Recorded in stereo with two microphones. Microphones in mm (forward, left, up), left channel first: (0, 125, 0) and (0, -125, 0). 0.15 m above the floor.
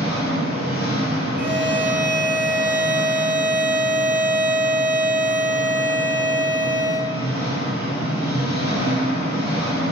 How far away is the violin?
About 0.6 m.